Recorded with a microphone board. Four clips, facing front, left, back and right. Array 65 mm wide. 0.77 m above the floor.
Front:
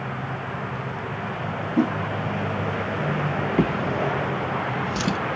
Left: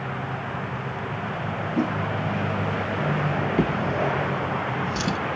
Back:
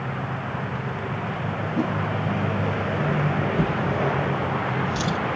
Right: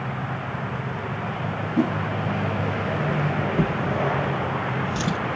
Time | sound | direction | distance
1.8 | a whoosh | 10° left | 1.3 m
3.6 | a drawer | 25° left | 1.0 m